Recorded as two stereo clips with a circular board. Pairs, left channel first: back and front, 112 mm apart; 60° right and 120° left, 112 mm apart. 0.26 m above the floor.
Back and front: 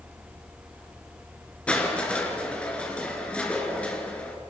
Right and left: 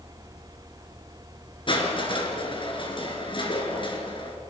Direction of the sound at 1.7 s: 100° right.